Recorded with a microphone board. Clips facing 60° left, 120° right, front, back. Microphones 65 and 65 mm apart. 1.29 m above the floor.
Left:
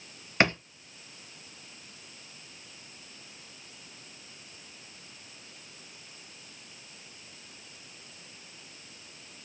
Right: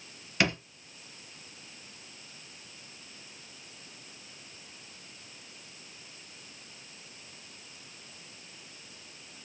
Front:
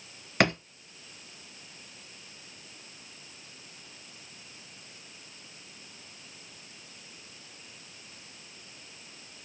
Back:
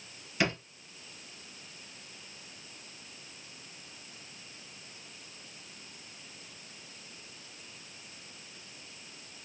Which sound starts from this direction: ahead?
A drawer, at 0.4 s.